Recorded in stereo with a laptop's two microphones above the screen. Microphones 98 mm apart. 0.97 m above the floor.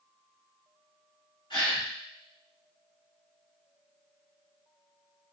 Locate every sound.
1.5 s a gasp: 55° left (ahead or behind), 1.8 m